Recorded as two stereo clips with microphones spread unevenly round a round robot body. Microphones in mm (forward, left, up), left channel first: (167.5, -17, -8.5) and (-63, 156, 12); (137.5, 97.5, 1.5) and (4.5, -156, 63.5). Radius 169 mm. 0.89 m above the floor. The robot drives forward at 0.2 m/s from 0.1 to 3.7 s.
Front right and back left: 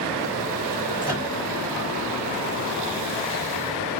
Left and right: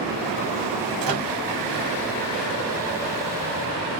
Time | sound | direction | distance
1.0 | a microwave | 105° right | 1.2 m